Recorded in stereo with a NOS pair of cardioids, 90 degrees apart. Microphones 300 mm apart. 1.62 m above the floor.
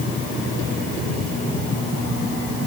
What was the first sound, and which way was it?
Only background noise.